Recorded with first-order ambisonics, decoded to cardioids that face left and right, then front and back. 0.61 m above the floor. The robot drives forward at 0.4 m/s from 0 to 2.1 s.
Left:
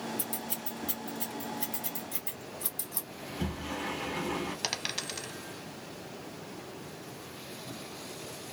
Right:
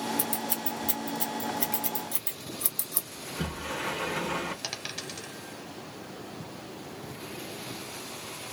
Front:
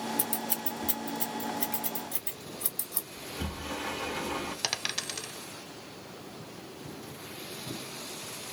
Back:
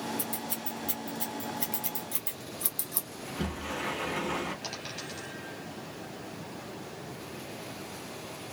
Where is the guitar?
I don't hear a guitar.